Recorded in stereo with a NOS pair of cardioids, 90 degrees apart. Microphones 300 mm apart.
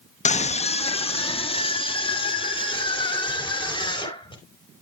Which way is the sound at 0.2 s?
25° left.